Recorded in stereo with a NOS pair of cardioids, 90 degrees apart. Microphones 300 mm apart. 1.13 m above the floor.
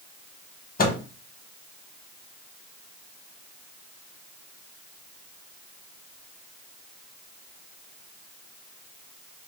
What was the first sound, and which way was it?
A microwave, 30° left.